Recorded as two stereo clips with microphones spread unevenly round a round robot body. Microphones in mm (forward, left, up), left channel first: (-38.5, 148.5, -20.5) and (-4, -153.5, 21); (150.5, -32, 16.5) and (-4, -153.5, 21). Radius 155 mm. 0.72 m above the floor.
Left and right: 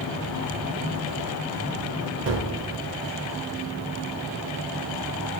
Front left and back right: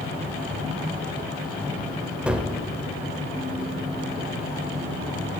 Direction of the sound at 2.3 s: 60° right.